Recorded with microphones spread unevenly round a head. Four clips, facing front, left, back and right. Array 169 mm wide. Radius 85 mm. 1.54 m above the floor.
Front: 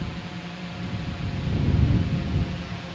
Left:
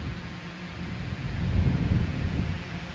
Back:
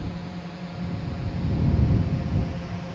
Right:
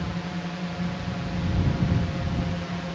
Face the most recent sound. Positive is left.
turn(degrees=-110)